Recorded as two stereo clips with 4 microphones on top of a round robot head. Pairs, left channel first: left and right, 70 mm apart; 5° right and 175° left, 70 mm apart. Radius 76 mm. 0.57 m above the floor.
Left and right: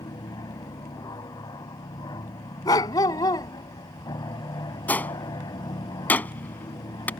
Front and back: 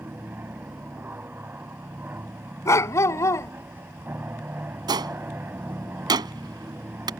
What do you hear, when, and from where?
0.0 s an aircraft: 115° left
2.6 s a dog barking: 45° left
4.9 s a gunshot: 155° left